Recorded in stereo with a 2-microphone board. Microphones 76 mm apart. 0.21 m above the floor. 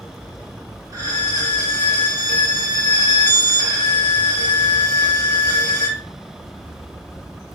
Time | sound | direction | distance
0.9 | a violin | 45° right (ahead or behind) | 1.5 m